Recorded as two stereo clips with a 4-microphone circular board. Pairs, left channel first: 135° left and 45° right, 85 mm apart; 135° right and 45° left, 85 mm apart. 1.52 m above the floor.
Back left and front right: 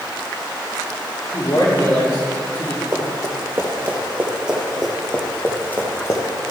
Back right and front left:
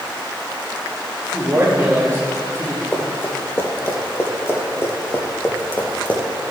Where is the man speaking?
100° left, 3 m.